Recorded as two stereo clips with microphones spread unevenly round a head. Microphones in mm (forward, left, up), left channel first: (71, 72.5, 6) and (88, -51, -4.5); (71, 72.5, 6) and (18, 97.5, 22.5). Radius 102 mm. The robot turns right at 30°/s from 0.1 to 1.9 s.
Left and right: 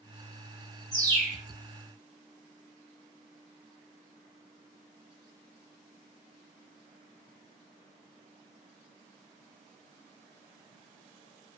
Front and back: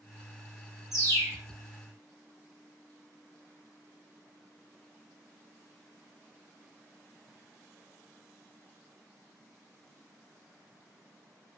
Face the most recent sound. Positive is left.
turn(degrees=-130)